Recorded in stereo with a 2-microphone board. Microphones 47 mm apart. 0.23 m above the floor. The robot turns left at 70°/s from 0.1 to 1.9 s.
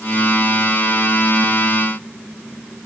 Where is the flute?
I don't hear a flute.